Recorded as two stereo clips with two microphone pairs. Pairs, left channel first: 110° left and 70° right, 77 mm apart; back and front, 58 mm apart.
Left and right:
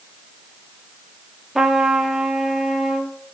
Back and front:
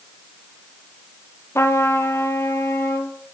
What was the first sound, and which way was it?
A trumpet, 150° right.